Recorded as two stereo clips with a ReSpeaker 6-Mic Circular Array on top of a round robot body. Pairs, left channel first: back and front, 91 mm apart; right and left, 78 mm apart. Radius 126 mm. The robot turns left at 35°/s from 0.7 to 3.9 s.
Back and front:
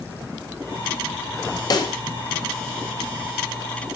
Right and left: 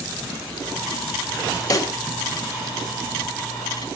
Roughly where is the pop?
Behind right.